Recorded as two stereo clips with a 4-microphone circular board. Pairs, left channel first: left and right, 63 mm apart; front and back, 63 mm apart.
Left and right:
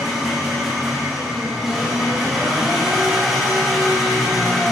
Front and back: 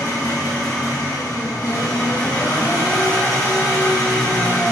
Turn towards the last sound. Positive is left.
turn(degrees=-5)